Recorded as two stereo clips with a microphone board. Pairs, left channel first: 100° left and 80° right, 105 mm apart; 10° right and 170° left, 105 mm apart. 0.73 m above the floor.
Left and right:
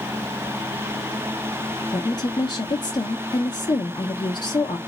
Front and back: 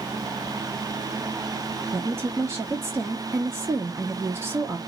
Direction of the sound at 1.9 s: 115° left.